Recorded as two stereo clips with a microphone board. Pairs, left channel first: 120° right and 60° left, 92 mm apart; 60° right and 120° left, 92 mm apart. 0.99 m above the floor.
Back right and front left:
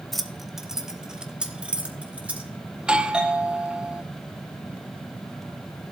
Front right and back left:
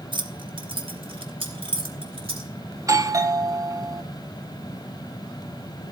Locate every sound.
0.1 s keys jangling: 150° left, 1.0 m; by 2.5 s 135° left, 2 m
2.8 s a doorbell: 130° left, 0.7 m